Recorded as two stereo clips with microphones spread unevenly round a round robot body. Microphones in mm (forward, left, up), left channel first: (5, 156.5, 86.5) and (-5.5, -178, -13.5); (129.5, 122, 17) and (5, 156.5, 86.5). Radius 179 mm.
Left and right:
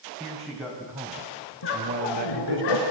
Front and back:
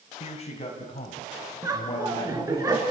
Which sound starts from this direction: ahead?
A man speaking, at 0.2 s.